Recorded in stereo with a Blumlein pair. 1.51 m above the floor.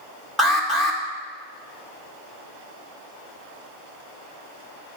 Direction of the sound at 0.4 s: Straight ahead.